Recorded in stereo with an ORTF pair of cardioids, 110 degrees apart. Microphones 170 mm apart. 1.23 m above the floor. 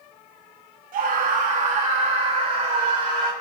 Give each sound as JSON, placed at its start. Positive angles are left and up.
{"t": 0.9, "sound": "a scream", "azimuth_deg": -55, "distance_m": 2.0}